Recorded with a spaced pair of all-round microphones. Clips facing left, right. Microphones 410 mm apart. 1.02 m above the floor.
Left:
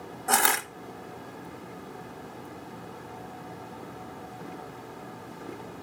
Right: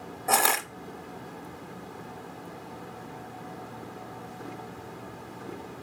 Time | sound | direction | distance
0.3 | crushing | 30° left (ahead or behind) | 0.9 m